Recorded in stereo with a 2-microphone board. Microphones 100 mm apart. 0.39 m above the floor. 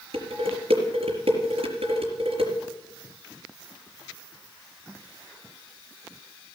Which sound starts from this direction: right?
Dishes clattering, at 0.1 s.